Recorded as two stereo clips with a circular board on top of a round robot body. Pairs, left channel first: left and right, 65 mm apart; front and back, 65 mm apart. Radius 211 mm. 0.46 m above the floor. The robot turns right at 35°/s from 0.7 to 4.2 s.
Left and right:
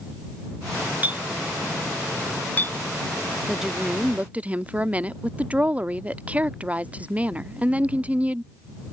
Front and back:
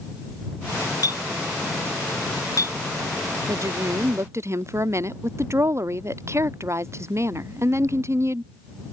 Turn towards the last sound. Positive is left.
turn(degrees=-150)